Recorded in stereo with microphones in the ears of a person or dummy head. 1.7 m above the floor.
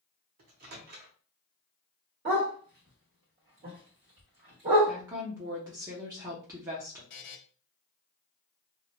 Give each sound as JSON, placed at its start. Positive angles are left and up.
{"t": 0.4, "sound": "a microwave", "side_deg": -50, "distance_m": 0.7}
{"t": 2.2, "sound": "a dog barking", "side_deg": -35, "distance_m": 1.6}
{"t": 4.9, "sound": "a woman speaking", "side_deg": -20, "distance_m": 0.7}
{"t": 7.1, "sound": "a buzzer", "side_deg": 55, "distance_m": 0.7}